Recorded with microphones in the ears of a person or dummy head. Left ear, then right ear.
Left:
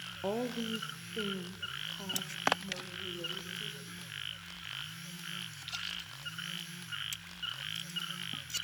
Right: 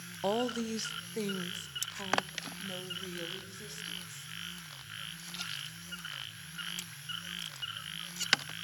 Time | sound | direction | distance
0.2 | a woman speaking | 25° right (ahead or behind) | 0.5 m